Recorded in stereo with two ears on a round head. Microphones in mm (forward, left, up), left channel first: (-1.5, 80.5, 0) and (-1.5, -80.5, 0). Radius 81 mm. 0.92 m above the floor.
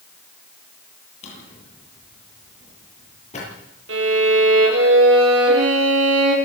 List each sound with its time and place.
1.2 s a drawer: 40° left (ahead or behind), 8.5 m
3.9 s a violin: 85° right, 9 m